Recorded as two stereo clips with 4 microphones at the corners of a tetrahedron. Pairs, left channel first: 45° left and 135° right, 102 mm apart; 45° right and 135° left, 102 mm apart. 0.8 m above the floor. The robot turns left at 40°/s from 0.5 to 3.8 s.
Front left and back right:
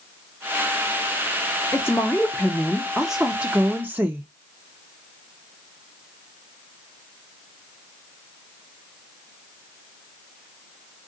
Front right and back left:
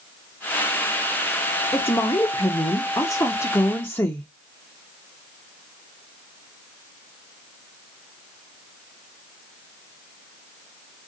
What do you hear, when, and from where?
1.7 s a woman speaking: straight ahead, 0.7 m; by 4.3 s 85° right, 0.7 m